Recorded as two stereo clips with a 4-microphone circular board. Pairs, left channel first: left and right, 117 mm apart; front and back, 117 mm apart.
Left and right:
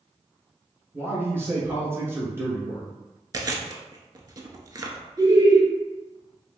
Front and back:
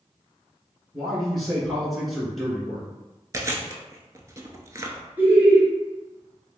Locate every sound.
0.9 s a man speaking: 90° right, 1.2 m
3.3 s chewing: 130° right, 0.5 m
5.2 s laughter: 120° right, 1.3 m